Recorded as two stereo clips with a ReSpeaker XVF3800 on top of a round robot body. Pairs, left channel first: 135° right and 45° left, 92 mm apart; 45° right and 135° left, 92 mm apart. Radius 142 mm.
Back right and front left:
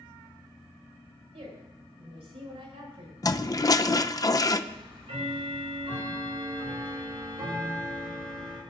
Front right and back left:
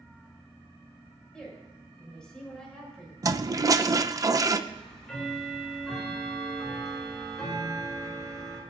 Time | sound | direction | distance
1.3 | a woman speaking | 35° left | 7 m
3.2 | a toilet flushing | straight behind | 0.9 m
4.7 | ticking | 40° left | 7 m